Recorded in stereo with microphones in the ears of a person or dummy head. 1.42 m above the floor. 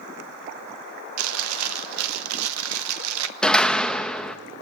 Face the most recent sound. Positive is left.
turn(degrees=5)  # may be behind; listen again after turning